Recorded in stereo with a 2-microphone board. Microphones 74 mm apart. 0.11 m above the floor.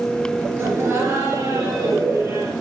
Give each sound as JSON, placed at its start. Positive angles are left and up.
{"t": 0.6, "sound": "laughter", "side_deg": -35, "distance_m": 1.9}